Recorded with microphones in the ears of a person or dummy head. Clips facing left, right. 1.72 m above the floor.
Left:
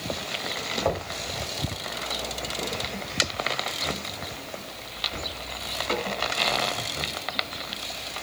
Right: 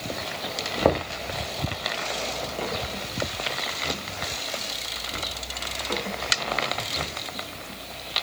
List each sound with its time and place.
0.8 s knocking: 65° right (ahead or behind), 2 m